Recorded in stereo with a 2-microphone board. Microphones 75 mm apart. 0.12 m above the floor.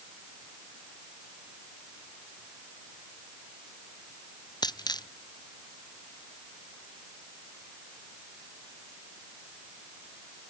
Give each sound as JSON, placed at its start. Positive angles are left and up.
{"t": 4.6, "sound": "a dropped coin", "side_deg": 70}